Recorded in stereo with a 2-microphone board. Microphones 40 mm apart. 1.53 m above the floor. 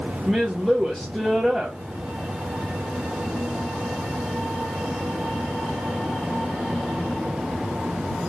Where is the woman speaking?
Centre (ahead or behind), 0.6 m.